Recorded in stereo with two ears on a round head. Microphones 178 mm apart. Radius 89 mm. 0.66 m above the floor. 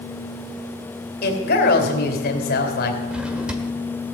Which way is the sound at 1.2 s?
50° left (ahead or behind).